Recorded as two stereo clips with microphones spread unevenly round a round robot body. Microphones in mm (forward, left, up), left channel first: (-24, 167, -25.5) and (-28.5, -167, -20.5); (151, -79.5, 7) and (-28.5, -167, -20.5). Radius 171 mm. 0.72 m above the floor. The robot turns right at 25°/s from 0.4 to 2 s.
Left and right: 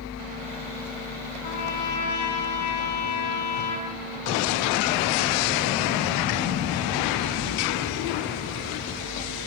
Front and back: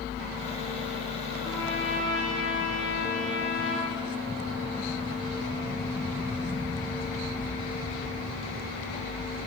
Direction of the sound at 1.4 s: 100° left.